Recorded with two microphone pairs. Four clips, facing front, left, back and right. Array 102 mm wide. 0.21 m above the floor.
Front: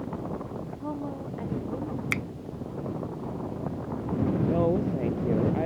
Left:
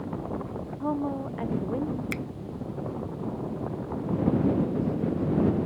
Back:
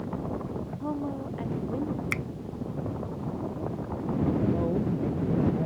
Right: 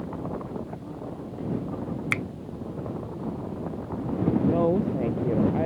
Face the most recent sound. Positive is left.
turn(degrees=-65)